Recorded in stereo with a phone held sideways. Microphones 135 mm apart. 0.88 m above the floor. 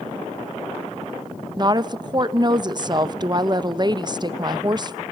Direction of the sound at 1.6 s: 30° right (ahead or behind).